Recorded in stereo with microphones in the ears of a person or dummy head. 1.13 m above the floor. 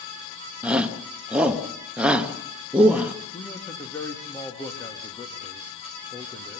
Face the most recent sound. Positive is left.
turn(degrees=10)  # may be behind; listen again after turning